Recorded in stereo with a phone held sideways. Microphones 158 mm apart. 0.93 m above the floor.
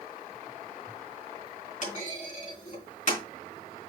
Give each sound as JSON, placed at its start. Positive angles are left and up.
{"t": 1.8, "sound": "a clunk", "side_deg": 50, "distance_m": 3.5}